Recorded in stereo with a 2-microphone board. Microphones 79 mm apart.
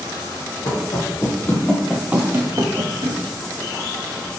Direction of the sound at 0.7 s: 45° left (ahead or behind).